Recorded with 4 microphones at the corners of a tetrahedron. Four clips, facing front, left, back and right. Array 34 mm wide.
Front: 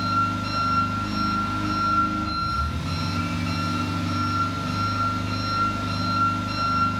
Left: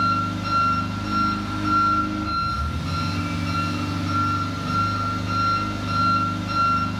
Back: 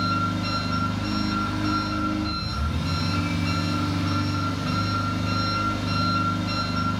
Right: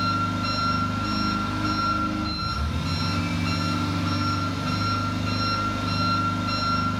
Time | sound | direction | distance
0.0 | an engine running | 120° right | 1.0 m